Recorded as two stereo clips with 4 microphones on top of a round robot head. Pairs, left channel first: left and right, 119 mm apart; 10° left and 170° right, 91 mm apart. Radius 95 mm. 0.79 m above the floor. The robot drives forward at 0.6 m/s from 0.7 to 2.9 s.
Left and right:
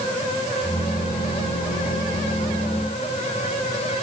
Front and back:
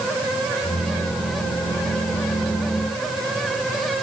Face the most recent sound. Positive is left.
No sound to turn to.